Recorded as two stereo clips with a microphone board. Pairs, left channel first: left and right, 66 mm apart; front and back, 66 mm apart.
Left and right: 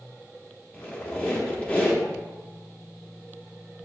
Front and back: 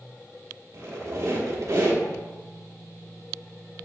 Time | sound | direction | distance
0.7 | a squeak | 155° left | 1.0 m